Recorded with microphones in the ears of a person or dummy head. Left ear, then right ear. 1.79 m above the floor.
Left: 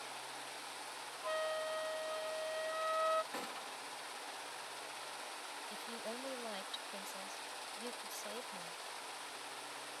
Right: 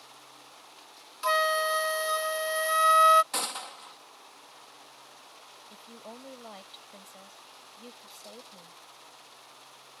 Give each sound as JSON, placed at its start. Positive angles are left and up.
{"t": 1.2, "sound": "a flute", "side_deg": -60}
{"t": 3.3, "sound": "a gunshot", "side_deg": -50}
{"t": 5.7, "sound": "a woman speaking", "side_deg": 10}